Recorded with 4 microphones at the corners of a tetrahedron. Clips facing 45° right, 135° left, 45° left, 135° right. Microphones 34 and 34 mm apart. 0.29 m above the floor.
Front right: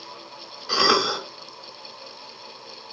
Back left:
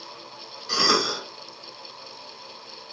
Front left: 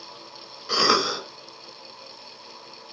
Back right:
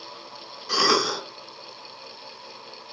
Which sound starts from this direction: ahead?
A cough, at 0.7 s.